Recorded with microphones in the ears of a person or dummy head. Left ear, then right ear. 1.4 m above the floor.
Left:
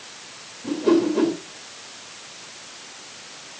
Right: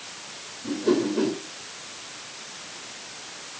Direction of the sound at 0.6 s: 30° left (ahead or behind).